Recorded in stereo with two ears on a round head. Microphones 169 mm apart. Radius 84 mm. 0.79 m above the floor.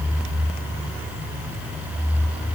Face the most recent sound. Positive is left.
No sound to turn to.